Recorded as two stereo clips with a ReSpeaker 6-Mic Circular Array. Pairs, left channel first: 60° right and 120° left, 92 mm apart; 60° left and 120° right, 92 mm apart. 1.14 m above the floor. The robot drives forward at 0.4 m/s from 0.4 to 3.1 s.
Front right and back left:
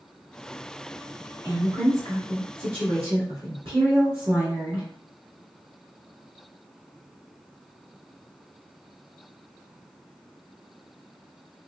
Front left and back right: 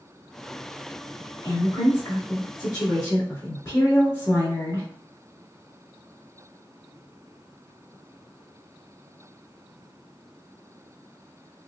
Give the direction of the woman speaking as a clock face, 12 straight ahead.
9 o'clock.